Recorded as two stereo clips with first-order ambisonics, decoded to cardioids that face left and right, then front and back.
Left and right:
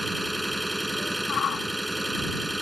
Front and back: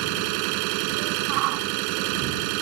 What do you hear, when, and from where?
0.0 s an engine running: straight behind
1.3 s a shout: 150° left